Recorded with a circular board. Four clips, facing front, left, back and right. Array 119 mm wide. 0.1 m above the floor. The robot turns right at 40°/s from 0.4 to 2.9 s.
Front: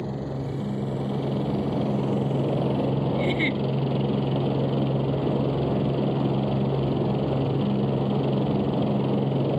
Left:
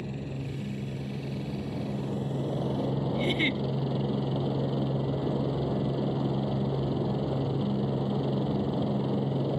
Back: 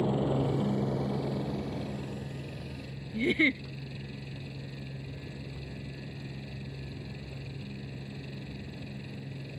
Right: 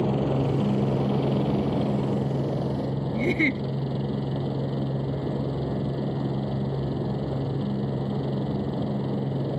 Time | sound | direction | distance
0.0 | a helicopter | 100° right | ?
3.1 | a giggle | 100° right | ?